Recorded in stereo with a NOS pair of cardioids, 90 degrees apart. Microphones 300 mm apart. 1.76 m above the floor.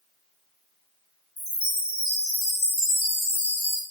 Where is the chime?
40° left, 1.1 m.